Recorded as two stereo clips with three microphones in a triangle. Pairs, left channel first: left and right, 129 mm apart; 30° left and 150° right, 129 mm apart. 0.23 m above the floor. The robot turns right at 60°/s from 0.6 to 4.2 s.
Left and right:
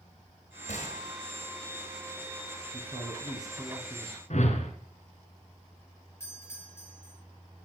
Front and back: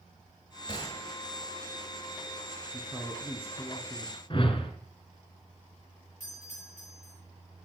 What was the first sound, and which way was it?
A gunshot, 80° left.